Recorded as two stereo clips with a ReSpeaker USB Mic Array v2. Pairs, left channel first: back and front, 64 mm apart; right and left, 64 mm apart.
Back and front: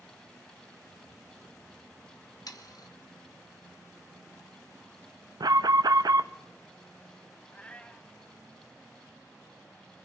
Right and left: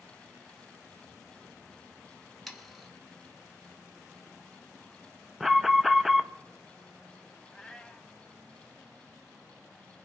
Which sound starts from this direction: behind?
Sawing, at 2.5 s.